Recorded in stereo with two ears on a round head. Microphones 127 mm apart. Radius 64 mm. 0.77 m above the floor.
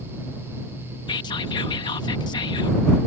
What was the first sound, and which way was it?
Whispering, 30° left (ahead or behind).